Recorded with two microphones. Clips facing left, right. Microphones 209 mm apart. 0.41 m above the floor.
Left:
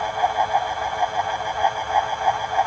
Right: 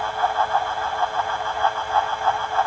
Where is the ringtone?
I don't hear a ringtone.